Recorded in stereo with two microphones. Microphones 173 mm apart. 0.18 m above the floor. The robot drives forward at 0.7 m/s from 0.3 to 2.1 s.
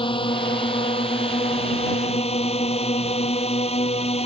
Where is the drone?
30° left (ahead or behind); by 4.3 s 35° left (ahead or behind).